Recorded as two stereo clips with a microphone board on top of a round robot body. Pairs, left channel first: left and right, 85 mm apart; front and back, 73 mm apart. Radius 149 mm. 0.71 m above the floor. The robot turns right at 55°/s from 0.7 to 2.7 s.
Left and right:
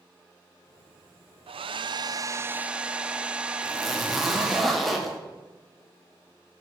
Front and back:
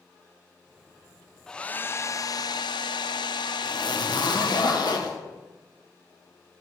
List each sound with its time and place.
1.5 s a hair dryer: 80° right, 0.7 m; by 4.6 s 15° right, 0.7 m
3.6 s a zipper: straight ahead, 2.5 m